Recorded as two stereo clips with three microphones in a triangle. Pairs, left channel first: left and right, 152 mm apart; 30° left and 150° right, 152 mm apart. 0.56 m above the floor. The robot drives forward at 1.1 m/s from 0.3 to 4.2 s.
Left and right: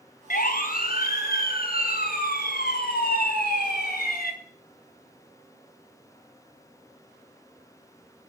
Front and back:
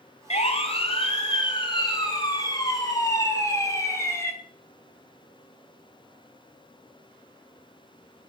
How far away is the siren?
About 3 m.